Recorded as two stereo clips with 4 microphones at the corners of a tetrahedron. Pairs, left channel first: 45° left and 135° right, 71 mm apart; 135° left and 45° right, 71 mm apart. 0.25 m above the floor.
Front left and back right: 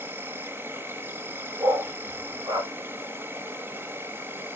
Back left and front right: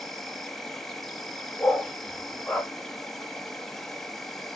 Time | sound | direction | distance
0.0 | an insect | 145° right | 0.8 m
1.6 | a dog barking | 150° right | 1.2 m